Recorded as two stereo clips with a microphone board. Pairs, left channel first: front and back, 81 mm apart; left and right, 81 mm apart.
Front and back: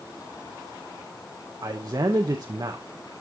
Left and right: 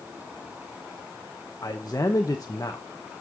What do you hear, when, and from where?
1.6 s a man speaking: 140° left, 0.8 m